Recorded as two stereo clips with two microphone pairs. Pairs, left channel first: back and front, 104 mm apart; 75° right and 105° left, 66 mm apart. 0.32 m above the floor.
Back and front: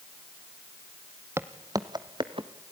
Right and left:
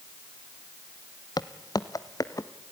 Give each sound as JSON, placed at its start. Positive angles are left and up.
{"t": 1.4, "sound": "footsteps", "azimuth_deg": -70, "distance_m": 0.9}